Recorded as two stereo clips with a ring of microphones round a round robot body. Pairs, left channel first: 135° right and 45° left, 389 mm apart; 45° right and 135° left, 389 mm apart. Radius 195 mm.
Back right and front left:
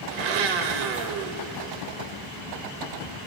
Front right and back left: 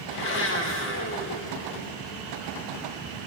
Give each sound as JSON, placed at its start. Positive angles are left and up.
{"t": 0.1, "sound": "a blender", "azimuth_deg": 20, "distance_m": 0.6}